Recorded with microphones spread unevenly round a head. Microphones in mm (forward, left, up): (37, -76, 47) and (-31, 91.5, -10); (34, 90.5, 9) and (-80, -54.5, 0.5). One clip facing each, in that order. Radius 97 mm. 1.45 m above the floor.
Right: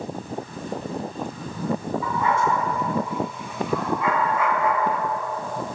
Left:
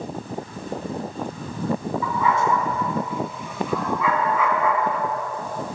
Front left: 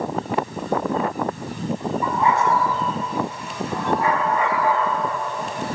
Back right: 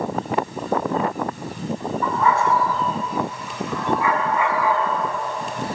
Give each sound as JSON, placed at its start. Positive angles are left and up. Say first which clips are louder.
{"t": 2.0, "sound": "a dog barking", "louder": "left 1 dB, back right 1 dB", "azimuth_deg": 125, "distance_m": 6.5}